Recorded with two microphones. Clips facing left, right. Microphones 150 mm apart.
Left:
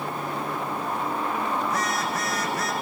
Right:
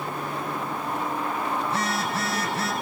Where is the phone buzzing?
30° right (ahead or behind), 7.5 m.